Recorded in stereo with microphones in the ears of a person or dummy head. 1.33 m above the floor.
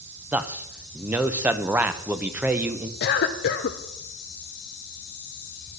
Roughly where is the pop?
No pop in this recording.